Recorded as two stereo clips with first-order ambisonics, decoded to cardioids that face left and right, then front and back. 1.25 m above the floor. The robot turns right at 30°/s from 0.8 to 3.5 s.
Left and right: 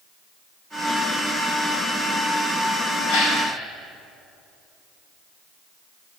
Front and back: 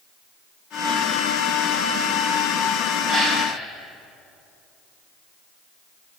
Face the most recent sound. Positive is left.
turn(degrees=105)